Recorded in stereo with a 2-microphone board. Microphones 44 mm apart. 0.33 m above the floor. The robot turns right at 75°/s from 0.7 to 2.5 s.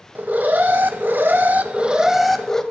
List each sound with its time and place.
0.1 s an alarm: 120° right, 1.0 m; by 2.6 s 15° left, 1.0 m